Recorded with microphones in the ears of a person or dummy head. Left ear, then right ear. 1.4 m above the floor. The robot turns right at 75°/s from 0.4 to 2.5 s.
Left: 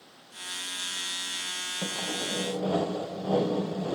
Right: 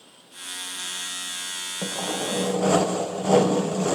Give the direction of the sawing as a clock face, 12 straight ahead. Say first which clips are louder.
Right 6 dB; 6 o'clock.